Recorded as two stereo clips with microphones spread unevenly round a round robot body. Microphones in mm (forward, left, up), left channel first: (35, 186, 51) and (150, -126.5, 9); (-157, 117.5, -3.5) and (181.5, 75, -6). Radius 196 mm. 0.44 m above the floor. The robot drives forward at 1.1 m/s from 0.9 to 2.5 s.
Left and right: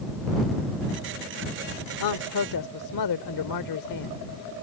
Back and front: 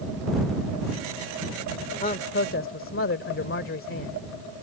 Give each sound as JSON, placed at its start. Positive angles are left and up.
{"t": 2.0, "sound": "a man speaking", "azimuth_deg": 110}